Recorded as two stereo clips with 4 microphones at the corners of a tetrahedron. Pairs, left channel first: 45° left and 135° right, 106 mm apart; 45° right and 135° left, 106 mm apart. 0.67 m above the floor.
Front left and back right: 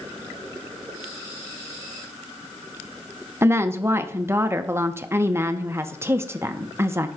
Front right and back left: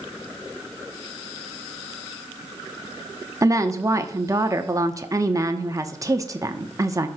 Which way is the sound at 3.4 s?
170° left.